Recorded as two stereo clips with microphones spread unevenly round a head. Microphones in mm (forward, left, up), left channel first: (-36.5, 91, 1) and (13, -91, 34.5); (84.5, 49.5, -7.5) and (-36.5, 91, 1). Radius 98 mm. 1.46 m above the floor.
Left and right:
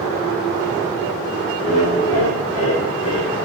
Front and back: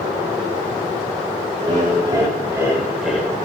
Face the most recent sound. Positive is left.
turn(degrees=65)